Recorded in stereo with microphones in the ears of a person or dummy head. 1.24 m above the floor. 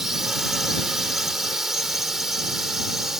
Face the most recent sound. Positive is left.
turn(degrees=0)  # may be behind; listen again after turning